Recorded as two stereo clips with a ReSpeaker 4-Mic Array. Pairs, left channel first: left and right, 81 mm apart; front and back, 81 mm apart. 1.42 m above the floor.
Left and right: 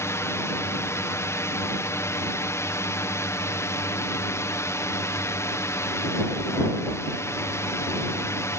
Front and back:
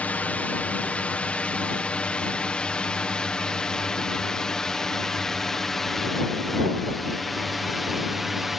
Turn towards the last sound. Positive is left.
turn(degrees=95)